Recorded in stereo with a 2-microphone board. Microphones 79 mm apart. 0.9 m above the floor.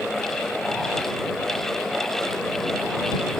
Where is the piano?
I don't hear a piano.